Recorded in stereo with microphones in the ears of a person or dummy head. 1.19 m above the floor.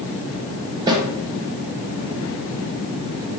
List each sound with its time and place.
0.9 s a snare drum: 25° right (ahead or behind), 0.7 m